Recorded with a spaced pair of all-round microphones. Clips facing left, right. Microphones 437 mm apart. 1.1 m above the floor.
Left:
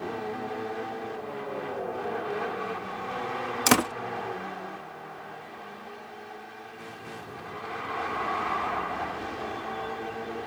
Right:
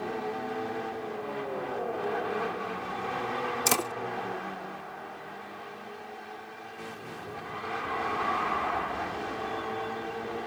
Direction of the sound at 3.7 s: 80° left.